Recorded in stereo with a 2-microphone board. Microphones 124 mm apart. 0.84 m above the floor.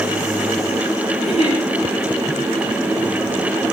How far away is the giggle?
About 9 m.